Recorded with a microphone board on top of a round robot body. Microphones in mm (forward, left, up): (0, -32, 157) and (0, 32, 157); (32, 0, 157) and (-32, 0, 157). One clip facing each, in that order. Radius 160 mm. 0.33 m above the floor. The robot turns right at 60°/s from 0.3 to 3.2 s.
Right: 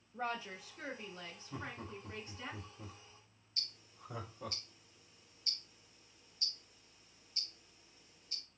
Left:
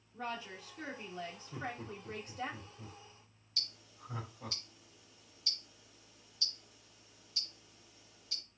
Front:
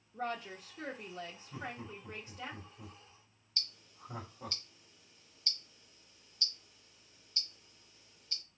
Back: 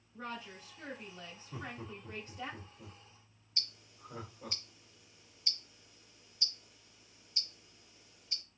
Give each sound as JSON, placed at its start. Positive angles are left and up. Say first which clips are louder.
{"t": 0.1, "sound": "a woman speaking", "louder": "right 2 dB, front 5 dB", "azimuth_deg": -35, "distance_m": 1.2}
{"t": 1.5, "sound": "laughter", "louder": "left 1 dB, back 1 dB", "azimuth_deg": -100, "distance_m": 1.9}
{"t": 3.6, "sound": "ticking", "louder": "left 3 dB, even", "azimuth_deg": 105, "distance_m": 0.9}